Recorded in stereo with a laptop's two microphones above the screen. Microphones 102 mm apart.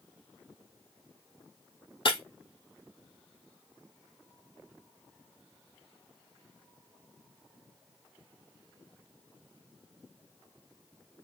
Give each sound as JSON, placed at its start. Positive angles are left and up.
{"t": 2.0, "sound": "breaking glass", "side_deg": 55, "distance_m": 1.9}